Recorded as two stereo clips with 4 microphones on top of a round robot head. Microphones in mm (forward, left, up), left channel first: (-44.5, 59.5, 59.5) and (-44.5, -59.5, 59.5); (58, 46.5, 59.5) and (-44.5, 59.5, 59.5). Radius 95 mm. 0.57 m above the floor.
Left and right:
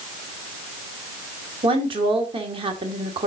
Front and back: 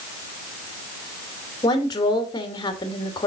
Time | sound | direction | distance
1.6 | a woman speaking | 55° right | 2 m